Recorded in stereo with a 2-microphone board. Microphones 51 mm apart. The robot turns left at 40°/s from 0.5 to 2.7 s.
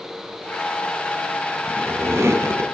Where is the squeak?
50° right, 1.9 m; by 2.6 s 85° right, 1.9 m.